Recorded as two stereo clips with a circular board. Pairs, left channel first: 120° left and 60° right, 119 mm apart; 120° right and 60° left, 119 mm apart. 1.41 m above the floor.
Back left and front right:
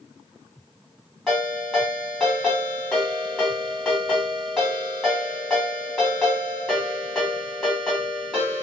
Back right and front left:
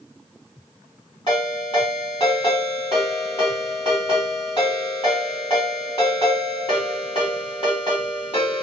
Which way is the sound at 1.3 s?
155° right.